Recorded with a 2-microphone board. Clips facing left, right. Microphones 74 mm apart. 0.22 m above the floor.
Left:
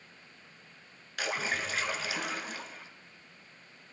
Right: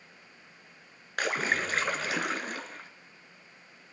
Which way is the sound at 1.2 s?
50° right (ahead or behind).